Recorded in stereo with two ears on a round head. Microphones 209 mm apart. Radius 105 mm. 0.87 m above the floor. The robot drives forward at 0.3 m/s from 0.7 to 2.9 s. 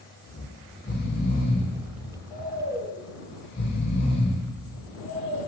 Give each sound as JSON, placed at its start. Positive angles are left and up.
{"t": 0.3, "sound": "snoring", "side_deg": 35, "distance_m": 1.7}